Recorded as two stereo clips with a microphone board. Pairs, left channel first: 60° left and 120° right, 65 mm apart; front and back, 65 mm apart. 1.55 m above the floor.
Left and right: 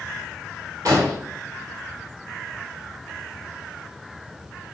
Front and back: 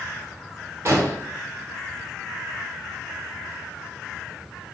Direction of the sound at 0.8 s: 140° right.